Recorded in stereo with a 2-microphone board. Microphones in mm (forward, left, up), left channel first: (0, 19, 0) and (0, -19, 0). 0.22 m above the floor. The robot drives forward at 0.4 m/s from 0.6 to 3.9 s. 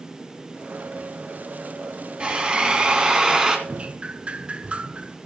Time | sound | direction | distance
2.2 | a drill | 25° right (ahead or behind) | 1.3 m
3.7 | dripping | 30° right (ahead or behind) | 0.6 m